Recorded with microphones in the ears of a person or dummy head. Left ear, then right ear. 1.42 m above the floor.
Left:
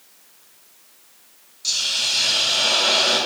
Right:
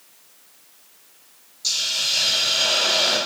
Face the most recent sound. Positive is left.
turn(degrees=-15)  # may be behind; listen again after turning